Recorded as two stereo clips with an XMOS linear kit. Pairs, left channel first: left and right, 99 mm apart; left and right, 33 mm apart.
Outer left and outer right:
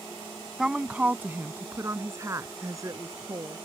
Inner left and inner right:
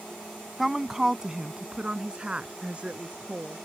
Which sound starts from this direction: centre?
A woman speaking, at 0.6 s.